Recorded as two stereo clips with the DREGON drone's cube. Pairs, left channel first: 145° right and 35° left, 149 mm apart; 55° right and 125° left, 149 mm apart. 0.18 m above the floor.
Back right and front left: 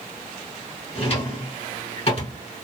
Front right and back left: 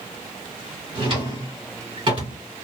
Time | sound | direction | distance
0.9 | a drawer | 175° left | 1.7 m